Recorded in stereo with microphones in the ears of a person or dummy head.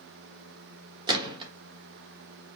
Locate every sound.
1.1 s a gunshot: 20° right (ahead or behind), 1.2 m